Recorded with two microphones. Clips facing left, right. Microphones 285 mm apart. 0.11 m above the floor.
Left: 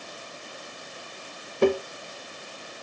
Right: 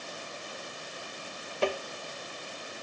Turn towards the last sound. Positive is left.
turn(degrees=60)  # may be behind; listen again after turning